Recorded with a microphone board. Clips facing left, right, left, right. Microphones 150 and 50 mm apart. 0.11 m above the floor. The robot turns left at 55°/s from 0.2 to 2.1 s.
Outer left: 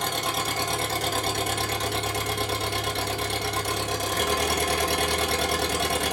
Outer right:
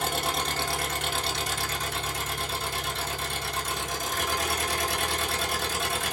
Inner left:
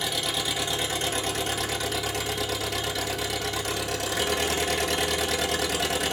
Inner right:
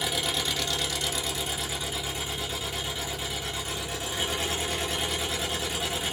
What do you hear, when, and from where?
0.0 s an engine running: 170° right, 1.7 m; by 6.1 s 85° left, 1.7 m